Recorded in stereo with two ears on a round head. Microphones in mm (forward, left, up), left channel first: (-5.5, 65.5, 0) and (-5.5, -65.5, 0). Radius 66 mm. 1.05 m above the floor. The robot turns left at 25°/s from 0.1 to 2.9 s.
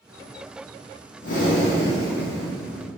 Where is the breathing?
60° left, 1.6 m; by 2.9 s 15° left, 1.6 m.